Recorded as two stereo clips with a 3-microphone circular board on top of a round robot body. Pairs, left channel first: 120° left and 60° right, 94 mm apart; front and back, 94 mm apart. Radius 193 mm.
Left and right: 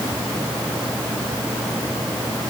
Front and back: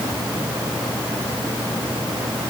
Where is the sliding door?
No sliding door in this recording.